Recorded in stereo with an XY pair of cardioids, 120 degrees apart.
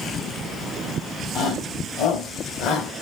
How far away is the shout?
About 5.5 m.